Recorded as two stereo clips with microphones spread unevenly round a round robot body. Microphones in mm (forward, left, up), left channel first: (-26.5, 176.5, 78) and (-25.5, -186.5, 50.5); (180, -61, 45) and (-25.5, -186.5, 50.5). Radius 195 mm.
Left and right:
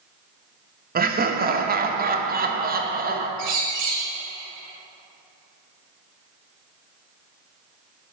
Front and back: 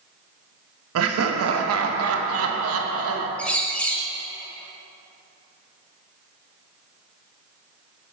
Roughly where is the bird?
Ahead right.